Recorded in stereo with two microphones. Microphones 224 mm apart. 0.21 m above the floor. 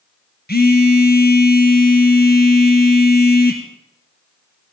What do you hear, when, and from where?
0.5 s a phone buzzing: 45° left (ahead or behind), 1.9 m